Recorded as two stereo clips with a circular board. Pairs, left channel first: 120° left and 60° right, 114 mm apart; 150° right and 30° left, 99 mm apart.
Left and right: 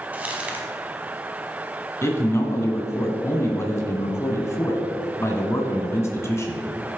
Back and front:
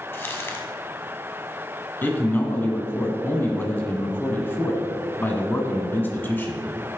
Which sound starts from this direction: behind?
A man speaking, at 2.0 s.